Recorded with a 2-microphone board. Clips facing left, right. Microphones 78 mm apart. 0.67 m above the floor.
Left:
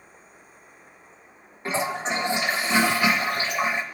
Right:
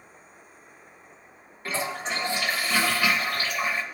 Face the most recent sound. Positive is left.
turn(degrees=20)  # may be behind; listen again after turning